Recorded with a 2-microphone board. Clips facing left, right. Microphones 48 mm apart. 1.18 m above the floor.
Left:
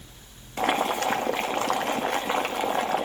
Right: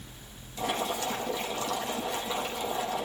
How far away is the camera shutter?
I don't hear a camera shutter.